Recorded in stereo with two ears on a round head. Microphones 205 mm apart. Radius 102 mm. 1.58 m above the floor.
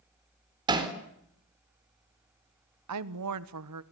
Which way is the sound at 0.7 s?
20° right (ahead or behind).